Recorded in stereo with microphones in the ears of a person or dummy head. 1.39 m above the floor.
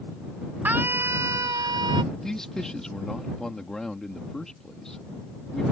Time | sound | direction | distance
0.7 | a scream | 15° right (ahead or behind) | ?
2.1 | a man speaking | centre (ahead or behind) | ?